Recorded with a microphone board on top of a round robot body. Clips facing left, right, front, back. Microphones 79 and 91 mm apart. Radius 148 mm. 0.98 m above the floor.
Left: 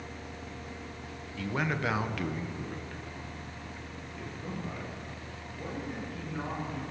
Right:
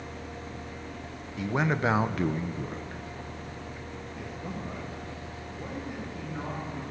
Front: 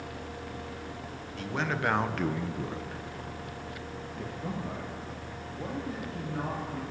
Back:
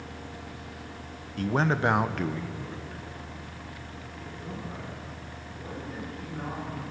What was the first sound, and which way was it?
A man speaking, 160° right.